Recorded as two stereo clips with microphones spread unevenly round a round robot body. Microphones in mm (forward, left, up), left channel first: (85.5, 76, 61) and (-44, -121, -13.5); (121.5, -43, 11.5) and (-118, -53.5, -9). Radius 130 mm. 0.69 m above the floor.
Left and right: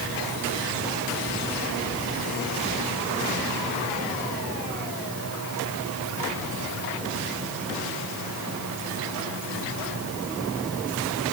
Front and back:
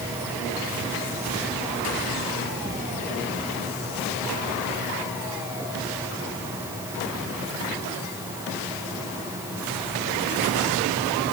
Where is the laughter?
No laughter in this recording.